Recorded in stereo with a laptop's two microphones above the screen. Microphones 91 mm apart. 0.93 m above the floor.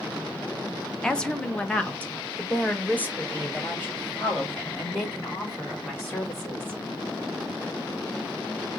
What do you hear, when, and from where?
1.0 s a woman speaking: 5° left (ahead or behind), 0.7 m; by 6.8 s 20° left (ahead or behind), 4 m